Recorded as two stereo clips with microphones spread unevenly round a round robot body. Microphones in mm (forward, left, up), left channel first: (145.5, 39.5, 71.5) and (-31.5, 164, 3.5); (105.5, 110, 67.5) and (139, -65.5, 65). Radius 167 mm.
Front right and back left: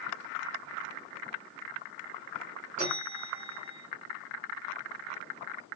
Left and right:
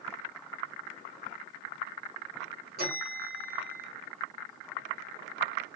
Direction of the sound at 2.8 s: 140° right.